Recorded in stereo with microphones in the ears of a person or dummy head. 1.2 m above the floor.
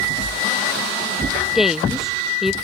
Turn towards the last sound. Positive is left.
turn(degrees=0)  # may be behind; listen again after turning